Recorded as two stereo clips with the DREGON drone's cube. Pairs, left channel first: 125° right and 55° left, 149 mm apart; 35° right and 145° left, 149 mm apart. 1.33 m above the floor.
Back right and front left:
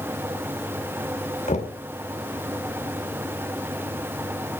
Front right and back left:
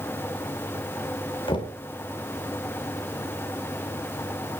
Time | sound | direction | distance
1.5 | knocking | 90° right | 3 m